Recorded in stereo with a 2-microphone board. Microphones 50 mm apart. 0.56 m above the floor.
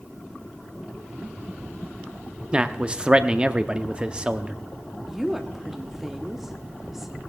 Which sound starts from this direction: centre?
A woman speaking, at 5.1 s.